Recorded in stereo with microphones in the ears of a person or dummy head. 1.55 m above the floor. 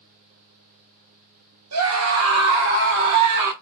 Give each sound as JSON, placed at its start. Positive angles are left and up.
{"t": 1.7, "sound": "a scream", "side_deg": -80, "distance_m": 1.3}